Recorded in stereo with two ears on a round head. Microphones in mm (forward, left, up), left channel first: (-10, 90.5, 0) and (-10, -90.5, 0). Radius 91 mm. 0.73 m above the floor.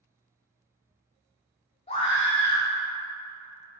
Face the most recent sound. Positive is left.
turn(degrees=30)  # may be behind; listen again after turning